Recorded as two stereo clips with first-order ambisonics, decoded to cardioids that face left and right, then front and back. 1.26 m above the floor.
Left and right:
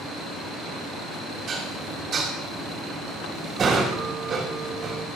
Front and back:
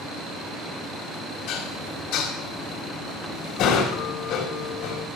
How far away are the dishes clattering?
About 2.5 m.